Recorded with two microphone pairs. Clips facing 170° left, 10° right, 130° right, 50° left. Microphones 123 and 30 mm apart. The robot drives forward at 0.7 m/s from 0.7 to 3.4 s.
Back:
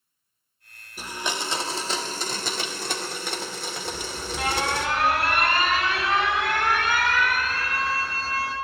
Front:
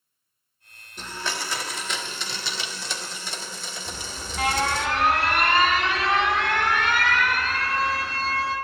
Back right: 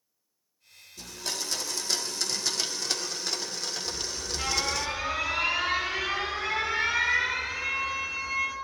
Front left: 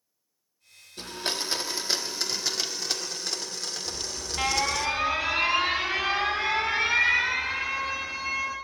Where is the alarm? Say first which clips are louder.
Back 4 dB, even; 85° left, 7.5 m.